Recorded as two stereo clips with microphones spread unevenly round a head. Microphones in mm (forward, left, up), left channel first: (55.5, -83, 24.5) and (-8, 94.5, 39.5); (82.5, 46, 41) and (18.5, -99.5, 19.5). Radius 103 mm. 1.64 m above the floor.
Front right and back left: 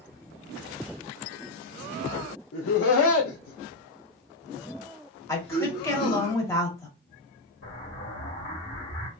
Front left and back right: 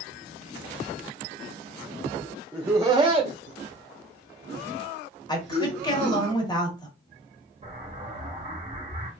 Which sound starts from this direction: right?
An explosion, at 7.6 s.